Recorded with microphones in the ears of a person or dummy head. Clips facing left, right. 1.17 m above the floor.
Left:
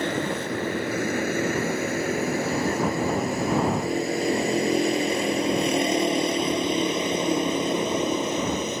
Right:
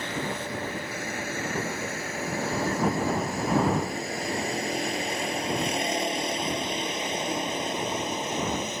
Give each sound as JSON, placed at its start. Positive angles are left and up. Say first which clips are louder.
{"t": 0.0, "sound": "a vehicle", "louder": "left 6 dB", "side_deg": 55}